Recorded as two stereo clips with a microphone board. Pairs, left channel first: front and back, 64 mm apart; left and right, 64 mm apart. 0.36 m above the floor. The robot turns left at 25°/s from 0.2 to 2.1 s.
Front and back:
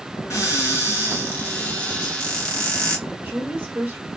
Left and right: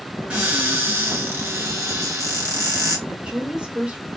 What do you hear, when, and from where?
0.3 s a cupboard door: 25° right, 1.8 m; by 3.0 s 70° right, 1.8 m
3.1 s a woman speaking: 150° right, 1.3 m